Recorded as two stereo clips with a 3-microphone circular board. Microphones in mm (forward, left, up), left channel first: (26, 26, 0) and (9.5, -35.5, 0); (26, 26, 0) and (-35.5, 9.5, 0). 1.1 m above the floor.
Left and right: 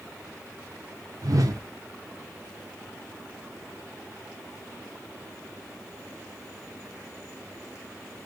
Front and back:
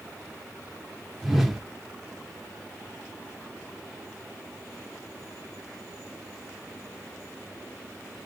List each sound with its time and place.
1.2 s a whoosh: 80° right, 0.8 m